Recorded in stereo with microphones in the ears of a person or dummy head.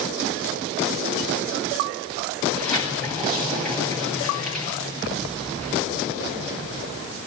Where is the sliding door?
5° left (ahead or behind), 9 m.